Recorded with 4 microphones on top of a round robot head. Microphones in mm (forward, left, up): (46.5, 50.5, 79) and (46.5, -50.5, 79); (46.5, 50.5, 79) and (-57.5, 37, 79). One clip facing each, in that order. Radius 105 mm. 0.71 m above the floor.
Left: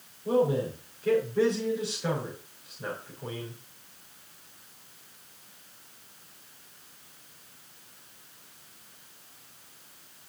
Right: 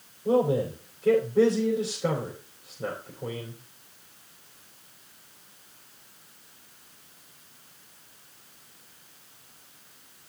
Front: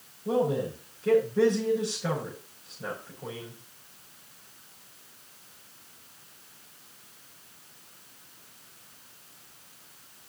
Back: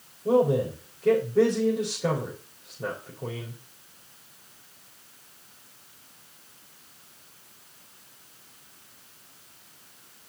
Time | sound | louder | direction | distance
0.2 | a man speaking | right 2 dB, back 5 dB | 155° right | 4 m